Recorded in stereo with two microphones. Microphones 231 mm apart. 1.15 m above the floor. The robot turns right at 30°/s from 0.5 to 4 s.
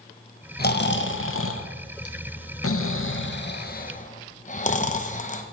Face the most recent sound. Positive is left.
turn(degrees=35)  # may be behind; listen again after turning